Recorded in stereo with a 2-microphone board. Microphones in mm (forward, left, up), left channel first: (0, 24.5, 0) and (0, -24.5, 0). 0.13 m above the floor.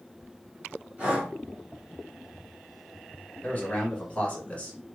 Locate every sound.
1.0 s breathing: 30° right (ahead or behind), 1.9 m
3.4 s a man speaking: 30° left (ahead or behind), 1.4 m